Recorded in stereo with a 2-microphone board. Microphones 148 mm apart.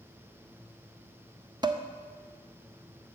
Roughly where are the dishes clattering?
Right.